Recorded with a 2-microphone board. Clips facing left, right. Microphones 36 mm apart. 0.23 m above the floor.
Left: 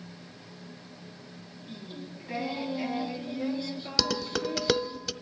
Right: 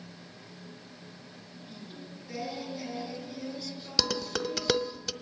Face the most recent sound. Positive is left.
turn(degrees=5)  # may be behind; listen again after turning